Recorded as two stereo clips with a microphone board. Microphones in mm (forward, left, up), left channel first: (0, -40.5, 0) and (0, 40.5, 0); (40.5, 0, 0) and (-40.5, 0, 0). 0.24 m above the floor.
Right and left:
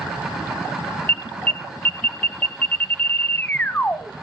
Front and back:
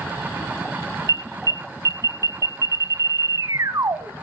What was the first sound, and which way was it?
An alarm, 155° right.